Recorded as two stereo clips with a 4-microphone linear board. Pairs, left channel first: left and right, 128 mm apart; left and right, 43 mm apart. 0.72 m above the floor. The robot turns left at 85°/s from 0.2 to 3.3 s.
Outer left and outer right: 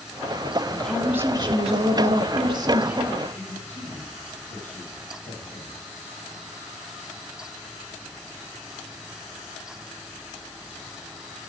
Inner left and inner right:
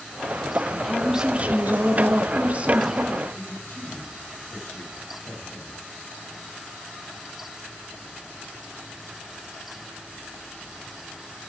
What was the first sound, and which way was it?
A woman speaking, 20° left.